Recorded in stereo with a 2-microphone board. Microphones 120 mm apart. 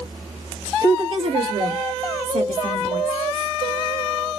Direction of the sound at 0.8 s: 30° right (ahead or behind).